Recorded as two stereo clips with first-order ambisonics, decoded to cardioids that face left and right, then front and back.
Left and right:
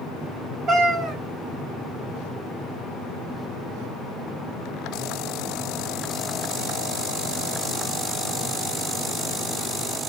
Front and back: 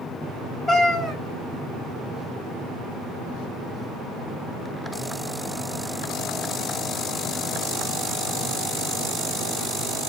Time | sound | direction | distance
0.7 | a cat meowing | 65° right | 1.8 m